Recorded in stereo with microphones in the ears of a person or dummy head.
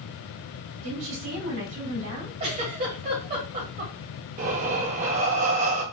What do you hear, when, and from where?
0.8 s a woman speaking: 65° right (ahead or behind), 2 m
2.4 s a giggle: 40° right (ahead or behind), 1.7 m
4.4 s breathing: 40° right (ahead or behind), 0.9 m